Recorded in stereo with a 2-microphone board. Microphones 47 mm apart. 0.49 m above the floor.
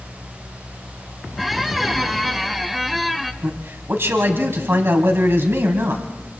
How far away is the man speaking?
About 3 m.